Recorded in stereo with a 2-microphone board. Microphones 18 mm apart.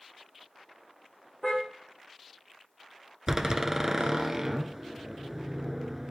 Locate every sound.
1.4 s a car horn: 15° left (ahead or behind), 5.5 m
3.3 s a door slam: 25° right (ahead or behind), 1.0 m